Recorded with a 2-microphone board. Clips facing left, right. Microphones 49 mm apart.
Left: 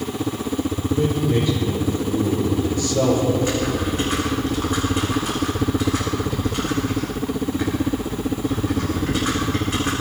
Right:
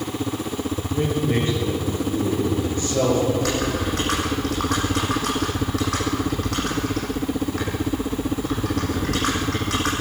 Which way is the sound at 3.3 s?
85° right.